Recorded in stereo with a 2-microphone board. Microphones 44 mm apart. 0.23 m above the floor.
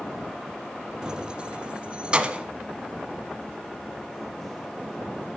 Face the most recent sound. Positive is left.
turn(degrees=-25)  # may be behind; listen again after turning